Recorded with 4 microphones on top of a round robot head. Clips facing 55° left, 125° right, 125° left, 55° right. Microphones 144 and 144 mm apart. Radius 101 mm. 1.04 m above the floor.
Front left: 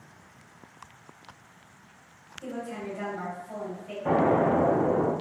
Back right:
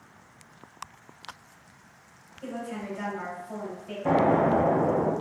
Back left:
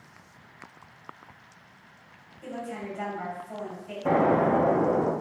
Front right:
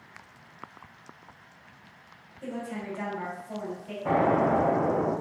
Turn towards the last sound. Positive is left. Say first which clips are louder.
# back right 1 dB, back left 1 dB
turn(degrees=175)